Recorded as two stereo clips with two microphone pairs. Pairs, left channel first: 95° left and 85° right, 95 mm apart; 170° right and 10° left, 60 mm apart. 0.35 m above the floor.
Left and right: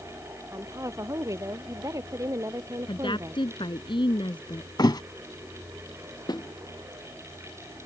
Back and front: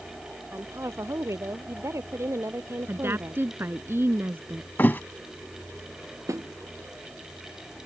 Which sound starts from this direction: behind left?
A thud, at 4.8 s.